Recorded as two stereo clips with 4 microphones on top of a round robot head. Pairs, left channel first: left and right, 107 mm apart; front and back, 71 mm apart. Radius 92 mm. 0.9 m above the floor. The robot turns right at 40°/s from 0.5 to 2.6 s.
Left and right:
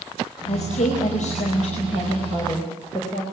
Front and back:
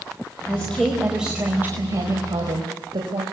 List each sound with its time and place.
0.5 s a woman speaking: 70° left, 5 m; by 3.2 s 155° left, 5 m